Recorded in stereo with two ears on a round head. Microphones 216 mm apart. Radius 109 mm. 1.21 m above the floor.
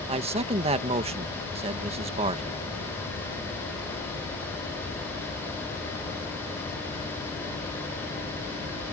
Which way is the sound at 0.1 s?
30° right (ahead or behind).